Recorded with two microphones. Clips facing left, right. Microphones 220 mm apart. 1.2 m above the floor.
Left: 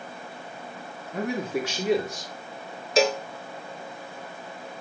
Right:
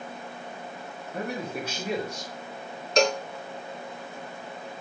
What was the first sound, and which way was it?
A man speaking, 80° left.